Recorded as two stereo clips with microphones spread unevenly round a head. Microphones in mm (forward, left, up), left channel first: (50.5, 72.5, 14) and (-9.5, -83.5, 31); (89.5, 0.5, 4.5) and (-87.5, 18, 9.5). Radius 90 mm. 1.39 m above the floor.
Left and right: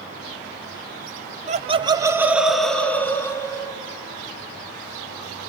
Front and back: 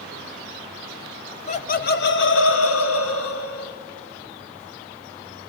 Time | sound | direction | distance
1.5 | laughter | 60° right | 0.9 m